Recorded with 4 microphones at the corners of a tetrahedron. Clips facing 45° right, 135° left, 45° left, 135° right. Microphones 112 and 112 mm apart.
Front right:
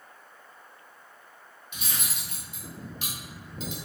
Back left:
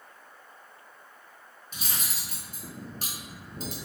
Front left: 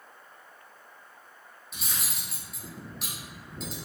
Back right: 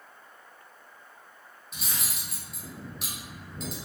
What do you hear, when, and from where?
1.7 s cutlery clinking: 135° left, 0.9 m